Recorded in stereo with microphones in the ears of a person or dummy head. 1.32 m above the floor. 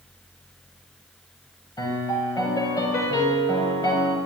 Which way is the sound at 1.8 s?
15° left (ahead or behind).